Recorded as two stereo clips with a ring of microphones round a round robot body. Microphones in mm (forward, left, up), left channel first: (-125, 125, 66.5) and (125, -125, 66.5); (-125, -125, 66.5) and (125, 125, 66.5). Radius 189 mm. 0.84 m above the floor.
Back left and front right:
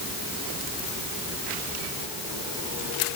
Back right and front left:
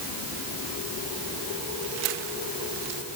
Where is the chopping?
No chopping in this recording.